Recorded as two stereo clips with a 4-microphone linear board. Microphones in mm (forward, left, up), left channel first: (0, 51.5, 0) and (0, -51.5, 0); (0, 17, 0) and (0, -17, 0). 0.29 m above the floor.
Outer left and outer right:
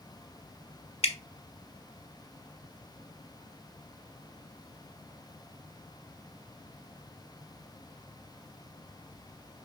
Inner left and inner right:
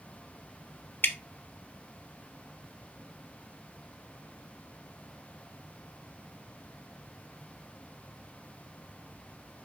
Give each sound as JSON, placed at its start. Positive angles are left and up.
{"t": 1.0, "sound": "dripping", "side_deg": 80, "distance_m": 0.7}